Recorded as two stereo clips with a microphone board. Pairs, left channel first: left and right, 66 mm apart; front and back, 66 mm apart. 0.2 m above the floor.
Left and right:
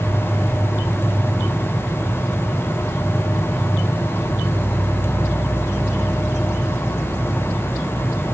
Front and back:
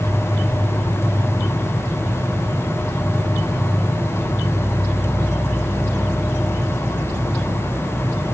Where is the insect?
170° right, 1.4 m.